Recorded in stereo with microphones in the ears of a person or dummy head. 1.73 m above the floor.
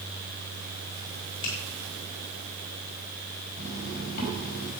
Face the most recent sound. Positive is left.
turn(degrees=45)  # may be behind; listen again after turning